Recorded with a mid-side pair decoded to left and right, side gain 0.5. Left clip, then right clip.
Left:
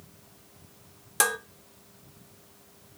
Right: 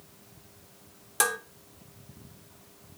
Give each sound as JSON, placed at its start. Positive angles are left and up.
{"t": 1.2, "sound": "dishes clattering", "azimuth_deg": 20, "distance_m": 1.2}